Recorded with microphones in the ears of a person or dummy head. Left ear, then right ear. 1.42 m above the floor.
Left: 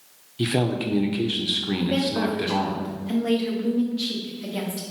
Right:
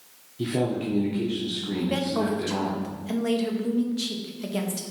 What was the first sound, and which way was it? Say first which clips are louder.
A man speaking: left 3 dB; 40° left (ahead or behind).